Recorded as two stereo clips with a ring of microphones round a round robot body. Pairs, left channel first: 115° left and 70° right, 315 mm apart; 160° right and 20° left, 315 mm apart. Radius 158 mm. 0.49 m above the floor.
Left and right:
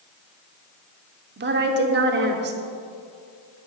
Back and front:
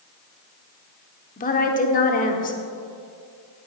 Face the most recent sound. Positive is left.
turn(degrees=-105)